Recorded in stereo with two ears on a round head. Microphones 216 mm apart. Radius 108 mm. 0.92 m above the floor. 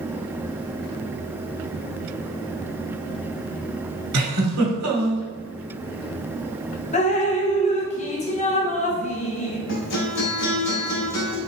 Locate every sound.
4.1 s a giggle: 80° right, 1.7 m
6.9 s dripping: 30° left (ahead or behind), 0.7 m
9.7 s a guitar: 70° left (ahead or behind), 2 m